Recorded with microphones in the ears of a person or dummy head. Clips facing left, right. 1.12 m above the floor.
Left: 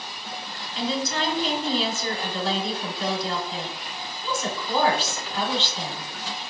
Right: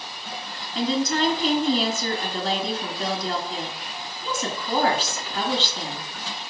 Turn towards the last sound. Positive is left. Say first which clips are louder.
# right 4 dB
turn(degrees=-35)  # may be behind; listen again after turning